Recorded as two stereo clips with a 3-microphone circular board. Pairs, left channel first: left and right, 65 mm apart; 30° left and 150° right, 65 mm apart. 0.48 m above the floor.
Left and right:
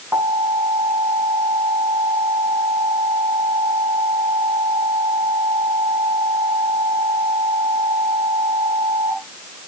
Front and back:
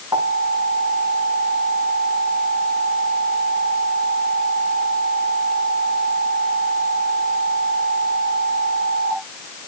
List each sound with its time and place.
0.1 s an alarm: 145° right, 7 m